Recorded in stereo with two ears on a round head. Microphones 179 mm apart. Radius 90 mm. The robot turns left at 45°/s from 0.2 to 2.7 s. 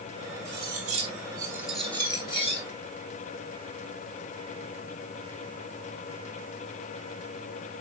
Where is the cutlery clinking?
120° right, 6 m; by 2.6 s 140° left, 6 m.